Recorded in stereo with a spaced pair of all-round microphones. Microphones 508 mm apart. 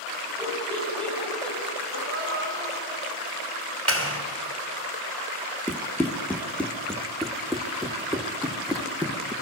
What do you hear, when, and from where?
0.4 s laughter: centre (ahead or behind), 9.5 m
1.9 s a gasp: 45° left (ahead or behind), 4.5 m
3.9 s a clap: 25° right (ahead or behind), 3.5 m
5.7 s running footsteps: 5° left (ahead or behind), 2 m; by 9.3 s centre (ahead or behind), 3.5 m